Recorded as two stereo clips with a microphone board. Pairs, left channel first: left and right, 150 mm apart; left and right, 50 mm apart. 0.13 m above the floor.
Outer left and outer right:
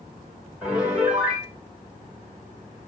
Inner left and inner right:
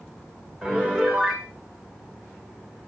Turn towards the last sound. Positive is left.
turn(degrees=-10)  # may be behind; listen again after turning